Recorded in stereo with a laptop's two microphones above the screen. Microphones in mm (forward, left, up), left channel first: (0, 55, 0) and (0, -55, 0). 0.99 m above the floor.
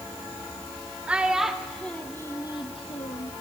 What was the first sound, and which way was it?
A child speaking, 10° right (ahead or behind).